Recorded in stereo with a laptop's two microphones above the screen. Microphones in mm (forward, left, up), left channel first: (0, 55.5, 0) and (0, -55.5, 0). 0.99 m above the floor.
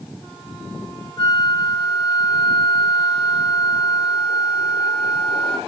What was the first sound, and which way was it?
A flute, 45° left (ahead or behind).